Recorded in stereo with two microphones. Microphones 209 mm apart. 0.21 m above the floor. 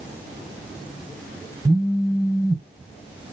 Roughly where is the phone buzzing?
Right.